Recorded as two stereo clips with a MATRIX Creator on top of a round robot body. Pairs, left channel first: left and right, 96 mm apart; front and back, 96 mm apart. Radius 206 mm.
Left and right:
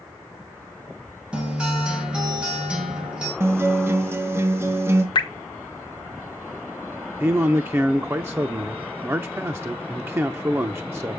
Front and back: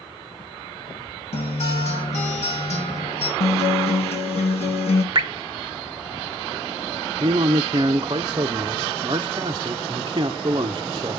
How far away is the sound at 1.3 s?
About 2 m.